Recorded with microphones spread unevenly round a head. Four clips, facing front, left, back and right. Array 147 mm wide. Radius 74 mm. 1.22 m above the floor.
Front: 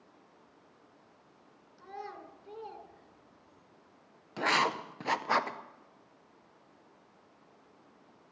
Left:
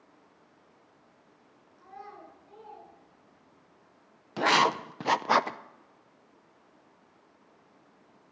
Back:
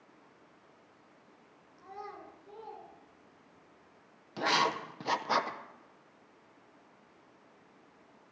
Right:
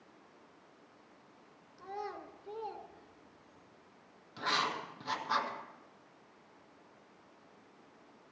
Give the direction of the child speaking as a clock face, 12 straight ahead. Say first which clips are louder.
Right 4 dB, front 1 dB; 3 o'clock.